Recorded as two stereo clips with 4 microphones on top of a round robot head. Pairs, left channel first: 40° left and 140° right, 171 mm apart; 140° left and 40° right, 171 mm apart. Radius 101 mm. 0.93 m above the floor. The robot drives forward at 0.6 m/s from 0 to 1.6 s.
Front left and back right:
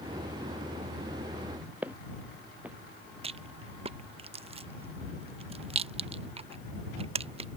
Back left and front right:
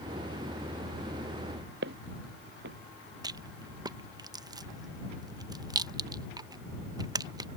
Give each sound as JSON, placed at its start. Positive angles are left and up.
{"t": 1.8, "sound": "footsteps", "azimuth_deg": -60}
{"t": 3.2, "sound": "a rattle", "azimuth_deg": -100}